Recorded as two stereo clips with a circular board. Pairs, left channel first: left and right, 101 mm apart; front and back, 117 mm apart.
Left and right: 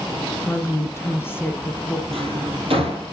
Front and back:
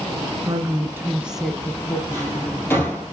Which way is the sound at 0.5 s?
140° left.